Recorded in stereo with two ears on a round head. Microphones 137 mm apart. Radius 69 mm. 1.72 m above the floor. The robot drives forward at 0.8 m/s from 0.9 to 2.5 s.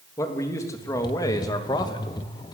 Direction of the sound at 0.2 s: 20° left (ahead or behind).